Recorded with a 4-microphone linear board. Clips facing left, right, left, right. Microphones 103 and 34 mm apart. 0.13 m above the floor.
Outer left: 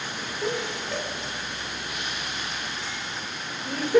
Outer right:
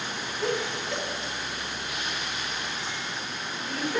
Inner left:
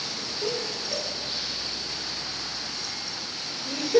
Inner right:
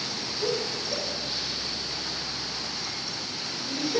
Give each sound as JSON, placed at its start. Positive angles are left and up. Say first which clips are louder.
{"t": 0.4, "sound": "laughter", "louder": "even, inner right 2 dB", "side_deg": 15, "distance_m": 3.5}